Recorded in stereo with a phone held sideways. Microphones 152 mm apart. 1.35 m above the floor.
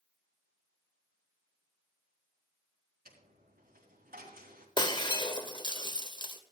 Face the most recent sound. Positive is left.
turn(degrees=30)  # may be behind; listen again after turning